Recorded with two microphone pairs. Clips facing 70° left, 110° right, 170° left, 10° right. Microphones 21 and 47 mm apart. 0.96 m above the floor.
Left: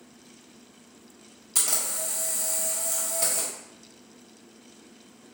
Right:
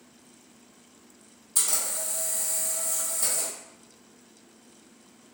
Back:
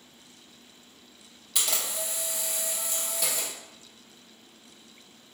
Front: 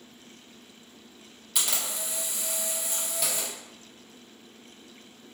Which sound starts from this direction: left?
A camera shutter, at 1.6 s.